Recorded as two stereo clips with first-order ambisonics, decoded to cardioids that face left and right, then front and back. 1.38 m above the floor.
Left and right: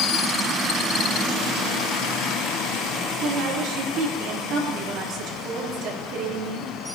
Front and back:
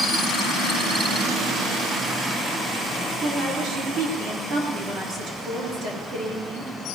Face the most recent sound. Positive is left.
turn(degrees=-125)